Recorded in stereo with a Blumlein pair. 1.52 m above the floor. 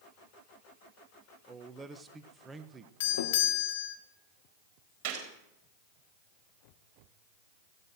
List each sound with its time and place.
1.5 s a man speaking: 15° right, 1.4 m
3.0 s a doorbell: 55° left, 1.9 m
5.0 s a gunshot: 45° right, 4 m